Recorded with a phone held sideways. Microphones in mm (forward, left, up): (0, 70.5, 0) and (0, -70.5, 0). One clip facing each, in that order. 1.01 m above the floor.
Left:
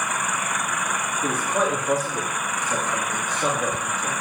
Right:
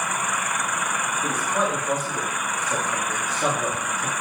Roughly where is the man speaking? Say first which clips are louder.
Left 2 dB; left.